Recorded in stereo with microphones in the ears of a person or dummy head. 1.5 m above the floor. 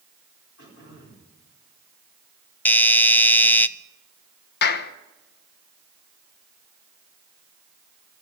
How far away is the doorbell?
About 0.6 m.